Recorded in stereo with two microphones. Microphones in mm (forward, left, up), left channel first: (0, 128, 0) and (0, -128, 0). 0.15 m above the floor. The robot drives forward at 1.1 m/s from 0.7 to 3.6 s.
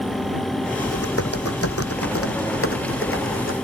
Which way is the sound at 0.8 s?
70° left (ahead or behind).